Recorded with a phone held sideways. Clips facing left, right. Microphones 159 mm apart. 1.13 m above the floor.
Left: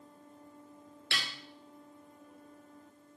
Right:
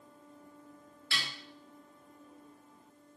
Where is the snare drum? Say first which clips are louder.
Left 1 dB; 80° left, 2 m.